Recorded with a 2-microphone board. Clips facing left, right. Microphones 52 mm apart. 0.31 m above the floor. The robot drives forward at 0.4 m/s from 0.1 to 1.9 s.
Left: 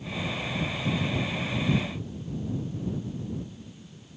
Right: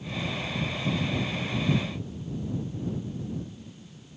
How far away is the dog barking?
I don't hear a dog barking.